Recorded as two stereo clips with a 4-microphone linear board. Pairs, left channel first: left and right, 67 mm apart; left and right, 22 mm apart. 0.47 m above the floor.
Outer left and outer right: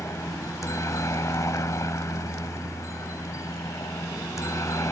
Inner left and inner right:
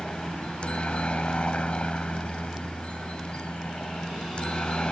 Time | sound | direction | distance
0.0 | a helicopter | 45° left (ahead or behind) | ?